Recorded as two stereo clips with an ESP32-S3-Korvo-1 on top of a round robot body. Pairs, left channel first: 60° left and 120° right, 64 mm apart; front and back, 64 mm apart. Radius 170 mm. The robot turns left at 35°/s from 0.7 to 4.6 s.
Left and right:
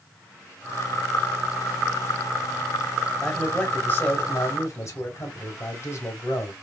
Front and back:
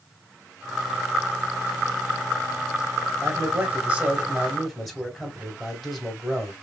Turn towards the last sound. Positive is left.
turn(degrees=90)